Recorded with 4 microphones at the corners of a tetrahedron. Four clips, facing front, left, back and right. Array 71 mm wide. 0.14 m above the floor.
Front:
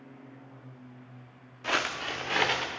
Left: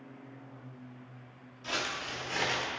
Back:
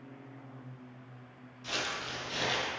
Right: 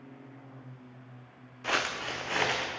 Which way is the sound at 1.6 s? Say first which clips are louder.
Right 5 dB, front 7 dB; 45° right.